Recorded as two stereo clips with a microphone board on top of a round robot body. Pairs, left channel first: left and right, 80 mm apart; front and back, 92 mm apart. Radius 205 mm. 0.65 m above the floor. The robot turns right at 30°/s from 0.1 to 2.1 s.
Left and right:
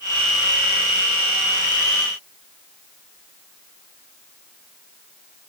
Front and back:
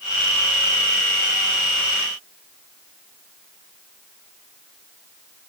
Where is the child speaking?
I don't hear a child speaking.